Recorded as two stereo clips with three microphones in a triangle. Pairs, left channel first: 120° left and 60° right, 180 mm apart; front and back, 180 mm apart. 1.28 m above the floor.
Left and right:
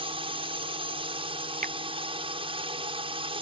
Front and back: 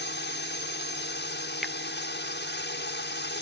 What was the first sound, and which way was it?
A drone, straight ahead.